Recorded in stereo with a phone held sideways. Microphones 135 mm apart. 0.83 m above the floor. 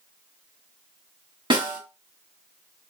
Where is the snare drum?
40° right (ahead or behind), 2.5 m.